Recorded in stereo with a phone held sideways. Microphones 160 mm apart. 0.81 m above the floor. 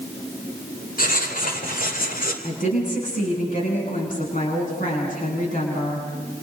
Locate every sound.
1.0 s writing: 65° left (ahead or behind), 2.5 m
2.4 s a woman speaking: 55° left (ahead or behind), 8 m